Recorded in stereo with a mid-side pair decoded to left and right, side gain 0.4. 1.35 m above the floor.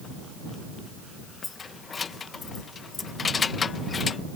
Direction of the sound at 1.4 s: 45° left.